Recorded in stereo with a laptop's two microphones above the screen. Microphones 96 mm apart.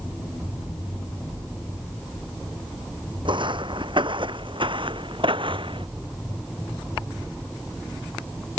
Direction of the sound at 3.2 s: 60° right (ahead or behind).